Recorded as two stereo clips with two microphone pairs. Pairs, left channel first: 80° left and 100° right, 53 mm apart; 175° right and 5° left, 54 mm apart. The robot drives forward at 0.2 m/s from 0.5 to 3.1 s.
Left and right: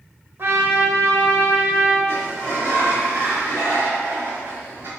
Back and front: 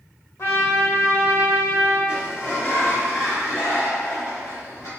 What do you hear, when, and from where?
0.4 s a trumpet: 140° right, 0.9 m; by 2.0 s 150° right, 1.1 m
2.1 s a sliding door: 140° right, 1.3 m; by 4.9 s 145° right, 1.4 m